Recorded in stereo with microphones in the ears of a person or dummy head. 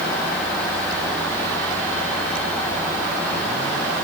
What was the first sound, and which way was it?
Only background noise.